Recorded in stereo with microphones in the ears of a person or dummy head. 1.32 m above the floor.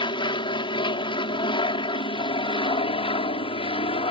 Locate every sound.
0.0 s an aircraft: 25° left (ahead or behind); by 4.1 s 30° left (ahead or behind)